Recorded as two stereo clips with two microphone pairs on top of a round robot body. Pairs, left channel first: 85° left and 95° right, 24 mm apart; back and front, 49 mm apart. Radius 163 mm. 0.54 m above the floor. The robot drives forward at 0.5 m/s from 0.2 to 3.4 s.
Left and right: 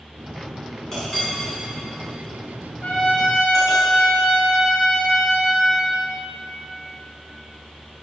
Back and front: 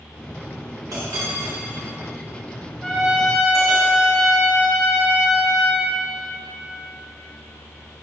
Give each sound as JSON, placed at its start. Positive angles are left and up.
{"t": 0.9, "sound": "a clink", "azimuth_deg": 15, "distance_m": 5.0}
{"t": 2.8, "sound": "a trumpet", "azimuth_deg": 100, "distance_m": 3.0}